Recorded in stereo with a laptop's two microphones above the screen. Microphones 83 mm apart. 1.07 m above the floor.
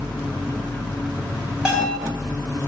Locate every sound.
1.6 s a bell: 10° right (ahead or behind), 1.8 m